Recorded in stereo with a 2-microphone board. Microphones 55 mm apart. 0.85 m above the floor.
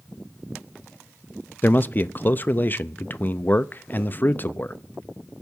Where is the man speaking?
40° left (ahead or behind), 0.6 m.